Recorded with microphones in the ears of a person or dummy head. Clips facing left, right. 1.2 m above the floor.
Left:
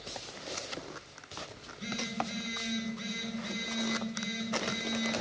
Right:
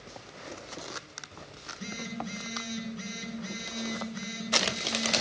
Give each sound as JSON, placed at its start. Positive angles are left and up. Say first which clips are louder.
{"t": 1.6, "sound": "a phone buzzing", "louder": "left 1 dB", "side_deg": -85, "distance_m": 9.0}